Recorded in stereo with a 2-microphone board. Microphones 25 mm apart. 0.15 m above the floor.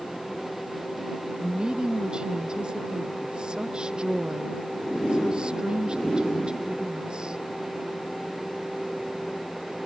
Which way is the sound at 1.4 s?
35° right (ahead or behind).